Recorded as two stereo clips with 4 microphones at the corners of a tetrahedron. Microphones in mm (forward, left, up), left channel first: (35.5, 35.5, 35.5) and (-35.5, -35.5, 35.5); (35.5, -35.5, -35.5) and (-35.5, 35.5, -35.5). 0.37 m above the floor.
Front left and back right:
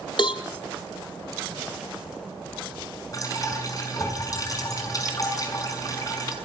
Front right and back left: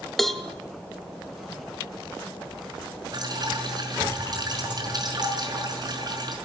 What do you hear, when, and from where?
0.2 s a cowbell: 40° left, 1.3 m
3.1 s dripping: 95° left, 5 m